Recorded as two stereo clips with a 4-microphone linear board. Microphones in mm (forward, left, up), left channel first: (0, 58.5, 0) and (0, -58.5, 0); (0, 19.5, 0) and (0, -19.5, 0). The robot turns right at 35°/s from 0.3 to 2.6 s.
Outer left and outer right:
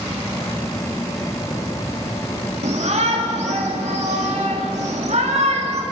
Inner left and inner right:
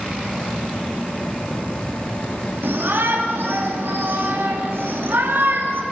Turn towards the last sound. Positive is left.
turn(degrees=-80)